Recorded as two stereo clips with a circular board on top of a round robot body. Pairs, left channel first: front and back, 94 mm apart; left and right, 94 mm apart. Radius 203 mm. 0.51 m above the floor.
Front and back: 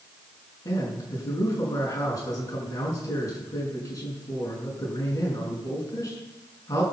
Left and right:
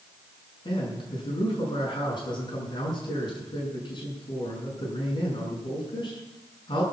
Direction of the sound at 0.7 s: 50° left.